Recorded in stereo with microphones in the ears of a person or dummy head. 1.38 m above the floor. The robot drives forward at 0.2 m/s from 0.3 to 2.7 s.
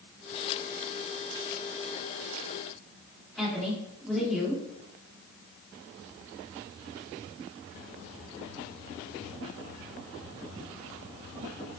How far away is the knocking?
I don't hear knocking.